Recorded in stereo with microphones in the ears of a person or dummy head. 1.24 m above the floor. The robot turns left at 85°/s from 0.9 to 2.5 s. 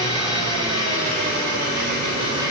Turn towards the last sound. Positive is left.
turn(degrees=-170)